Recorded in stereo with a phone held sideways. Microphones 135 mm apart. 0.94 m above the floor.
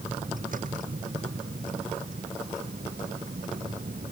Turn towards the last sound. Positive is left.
turn(degrees=-90)